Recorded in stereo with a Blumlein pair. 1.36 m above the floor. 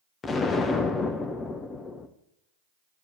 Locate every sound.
0.2 s an explosion: 20° left, 0.8 m